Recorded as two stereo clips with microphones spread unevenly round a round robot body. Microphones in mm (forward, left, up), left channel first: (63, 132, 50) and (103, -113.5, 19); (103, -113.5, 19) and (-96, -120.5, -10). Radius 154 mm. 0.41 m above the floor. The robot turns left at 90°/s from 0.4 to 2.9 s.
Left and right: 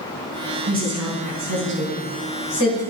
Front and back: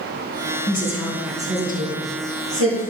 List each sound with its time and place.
0.7 s a woman speaking: 40° right, 4 m; by 2.8 s 130° left, 4 m